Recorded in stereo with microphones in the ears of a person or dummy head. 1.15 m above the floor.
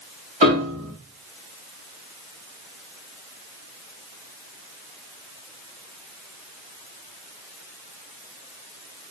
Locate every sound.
0.4 s a piano: 35° right (ahead or behind), 0.8 m